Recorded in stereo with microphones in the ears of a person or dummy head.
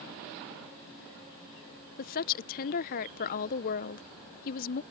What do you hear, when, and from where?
2.0 s a woman speaking: 45° left (ahead or behind)